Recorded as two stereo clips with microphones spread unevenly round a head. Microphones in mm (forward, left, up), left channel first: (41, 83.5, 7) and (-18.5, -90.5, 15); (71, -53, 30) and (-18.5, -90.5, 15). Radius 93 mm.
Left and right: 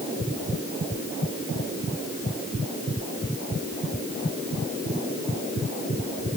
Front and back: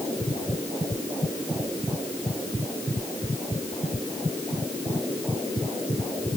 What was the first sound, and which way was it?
Only background noise.